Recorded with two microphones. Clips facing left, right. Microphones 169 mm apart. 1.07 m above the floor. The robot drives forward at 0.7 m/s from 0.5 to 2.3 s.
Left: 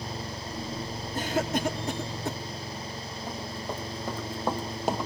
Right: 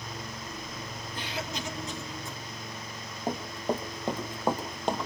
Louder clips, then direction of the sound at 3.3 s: Right 6 dB; 45° right (ahead or behind).